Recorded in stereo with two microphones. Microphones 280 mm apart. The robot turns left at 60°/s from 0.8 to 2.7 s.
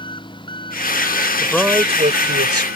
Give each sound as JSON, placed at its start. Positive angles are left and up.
{"t": 0.0, "sound": "an engine running", "azimuth_deg": 15}
{"t": 1.4, "sound": "a man speaking", "azimuth_deg": 10}